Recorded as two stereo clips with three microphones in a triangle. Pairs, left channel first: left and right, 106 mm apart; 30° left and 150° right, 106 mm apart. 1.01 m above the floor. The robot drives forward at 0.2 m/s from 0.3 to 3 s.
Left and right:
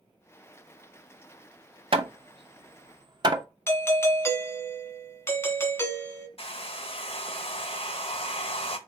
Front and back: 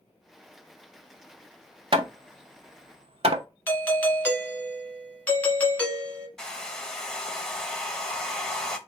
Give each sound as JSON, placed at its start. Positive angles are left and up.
{"t": 1.9, "sound": "hammering", "azimuth_deg": -115, "distance_m": 0.7}
{"t": 3.7, "sound": "a doorbell", "azimuth_deg": 80, "distance_m": 1.0}
{"t": 6.4, "sound": "a hair dryer", "azimuth_deg": 115, "distance_m": 0.8}